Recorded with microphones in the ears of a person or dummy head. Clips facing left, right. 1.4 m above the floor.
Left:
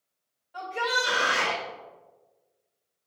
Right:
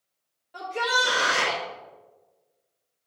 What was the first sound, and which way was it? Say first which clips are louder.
A shout: right 2 dB; 50° right (ahead or behind).